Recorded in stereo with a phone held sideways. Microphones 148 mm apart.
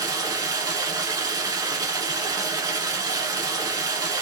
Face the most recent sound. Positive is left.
turn(degrees=-25)  # may be behind; listen again after turning